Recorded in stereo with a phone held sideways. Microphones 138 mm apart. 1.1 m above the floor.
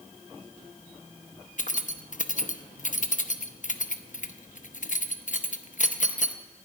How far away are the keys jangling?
About 0.8 m.